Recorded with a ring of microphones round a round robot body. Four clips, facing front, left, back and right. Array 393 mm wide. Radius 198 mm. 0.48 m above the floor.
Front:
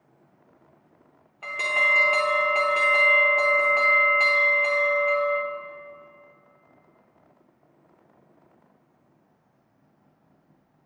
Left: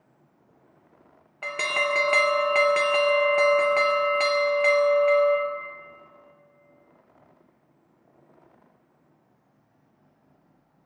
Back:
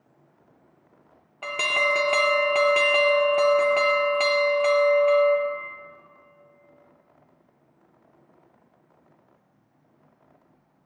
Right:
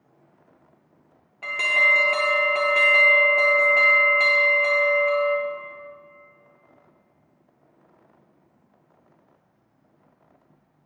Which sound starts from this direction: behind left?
An alarm, at 1.4 s.